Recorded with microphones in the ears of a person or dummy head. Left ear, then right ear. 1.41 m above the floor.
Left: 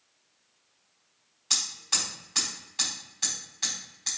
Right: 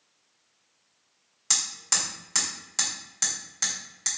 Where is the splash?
No splash in this recording.